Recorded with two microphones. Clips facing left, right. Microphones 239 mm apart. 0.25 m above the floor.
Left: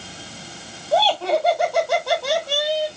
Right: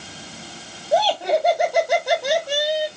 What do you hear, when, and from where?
0.9 s laughter: 15° right (ahead or behind), 1.9 m